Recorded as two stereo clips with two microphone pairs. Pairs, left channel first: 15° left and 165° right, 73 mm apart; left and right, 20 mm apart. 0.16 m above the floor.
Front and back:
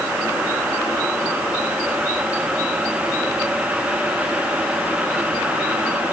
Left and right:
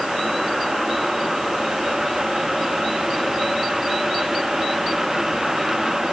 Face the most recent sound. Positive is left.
No sound to turn to.